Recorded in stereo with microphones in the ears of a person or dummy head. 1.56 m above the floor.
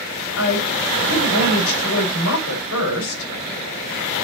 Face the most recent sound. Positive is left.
turn(degrees=75)  # may be behind; listen again after turning